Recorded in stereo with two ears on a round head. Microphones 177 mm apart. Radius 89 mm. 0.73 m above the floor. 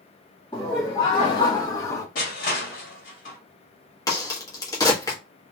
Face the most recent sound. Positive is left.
turn(degrees=20)  # may be behind; listen again after turning